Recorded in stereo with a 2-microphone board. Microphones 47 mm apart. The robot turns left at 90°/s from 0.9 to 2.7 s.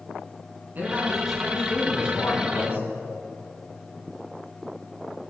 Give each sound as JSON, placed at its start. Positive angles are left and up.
{"t": 0.8, "sound": "a man speaking", "azimuth_deg": -140, "distance_m": 5.0}